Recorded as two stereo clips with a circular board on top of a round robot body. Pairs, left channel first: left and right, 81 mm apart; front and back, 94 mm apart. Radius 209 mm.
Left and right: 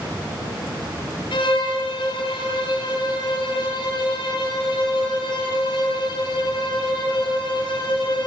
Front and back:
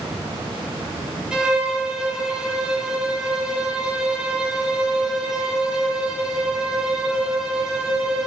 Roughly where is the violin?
Left.